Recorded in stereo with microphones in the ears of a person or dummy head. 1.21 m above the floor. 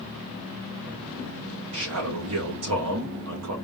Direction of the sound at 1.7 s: 70° right (ahead or behind).